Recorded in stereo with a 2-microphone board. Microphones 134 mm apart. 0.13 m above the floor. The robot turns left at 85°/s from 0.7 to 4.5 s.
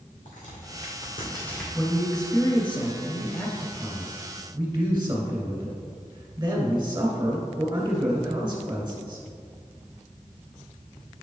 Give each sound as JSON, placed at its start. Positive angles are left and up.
{"t": 0.2, "sound": "a crack", "side_deg": 80, "distance_m": 2.0}
{"t": 1.7, "sound": "a man speaking", "azimuth_deg": 155, "distance_m": 1.7}